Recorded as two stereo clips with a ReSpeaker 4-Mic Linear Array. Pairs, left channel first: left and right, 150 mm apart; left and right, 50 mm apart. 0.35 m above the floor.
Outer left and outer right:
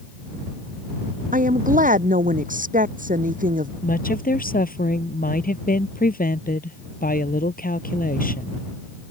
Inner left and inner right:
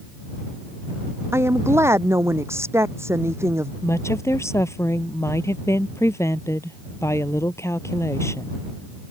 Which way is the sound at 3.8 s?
65° left (ahead or behind).